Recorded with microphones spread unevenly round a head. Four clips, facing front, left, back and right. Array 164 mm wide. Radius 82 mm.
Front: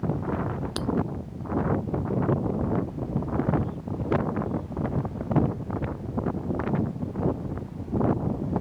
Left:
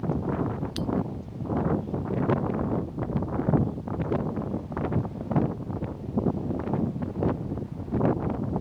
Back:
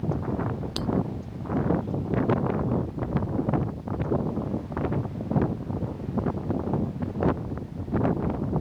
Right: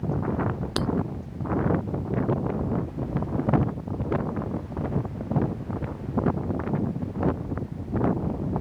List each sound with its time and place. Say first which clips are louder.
0.8 s breaking glass: right 7 dB, back 1 dB; 85° right